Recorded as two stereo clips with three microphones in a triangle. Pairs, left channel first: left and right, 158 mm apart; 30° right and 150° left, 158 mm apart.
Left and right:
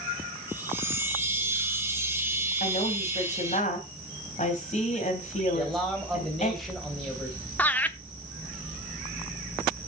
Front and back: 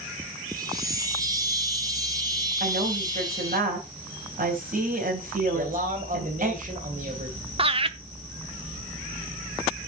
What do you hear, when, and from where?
0.5 s a chime: 160° right, 1.5 m
2.6 s a woman speaking: 125° left, 3 m
5.5 s a man speaking: straight behind, 2.5 m
7.6 s laughter: 160° left, 0.7 m